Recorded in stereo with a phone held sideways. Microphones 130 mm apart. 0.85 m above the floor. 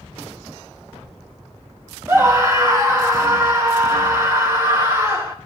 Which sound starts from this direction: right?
A scream, at 2.1 s.